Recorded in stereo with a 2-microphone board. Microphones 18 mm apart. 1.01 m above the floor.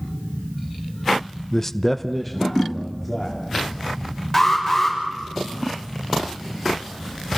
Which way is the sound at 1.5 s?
15° left (ahead or behind).